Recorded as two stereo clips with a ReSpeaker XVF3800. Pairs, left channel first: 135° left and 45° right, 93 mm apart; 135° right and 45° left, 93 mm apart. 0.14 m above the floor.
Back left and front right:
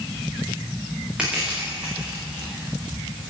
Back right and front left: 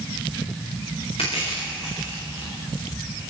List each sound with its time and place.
1.2 s crushing: 125° right, 7.5 m